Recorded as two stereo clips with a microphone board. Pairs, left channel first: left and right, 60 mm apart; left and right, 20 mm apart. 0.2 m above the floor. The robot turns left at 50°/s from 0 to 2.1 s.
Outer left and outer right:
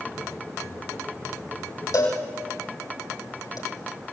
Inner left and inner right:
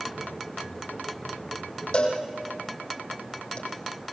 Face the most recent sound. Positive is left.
turn(degrees=75)  # may be behind; listen again after turning